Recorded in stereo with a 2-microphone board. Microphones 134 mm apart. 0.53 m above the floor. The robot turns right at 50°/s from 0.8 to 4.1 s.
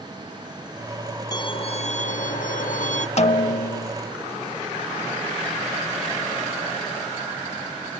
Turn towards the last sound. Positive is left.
turn(degrees=110)